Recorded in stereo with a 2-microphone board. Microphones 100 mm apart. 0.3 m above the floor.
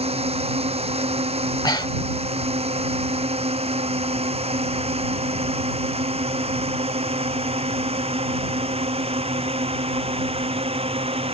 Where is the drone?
85° right; by 11.3 s 75° right (ahead or behind).